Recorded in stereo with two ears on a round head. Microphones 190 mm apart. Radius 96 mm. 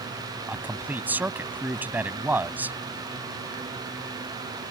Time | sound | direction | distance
0.5 | a man speaking | 10° right (ahead or behind) | ?